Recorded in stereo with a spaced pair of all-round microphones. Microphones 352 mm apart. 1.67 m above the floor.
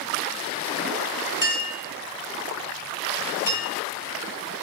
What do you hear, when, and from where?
1.4 s a clink: 60° left (ahead or behind), 1.4 m